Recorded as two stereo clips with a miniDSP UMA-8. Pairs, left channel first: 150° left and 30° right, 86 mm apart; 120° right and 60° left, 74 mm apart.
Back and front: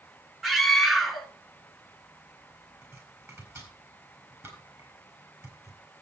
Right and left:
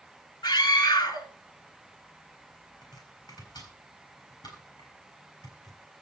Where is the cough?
I don't hear a cough.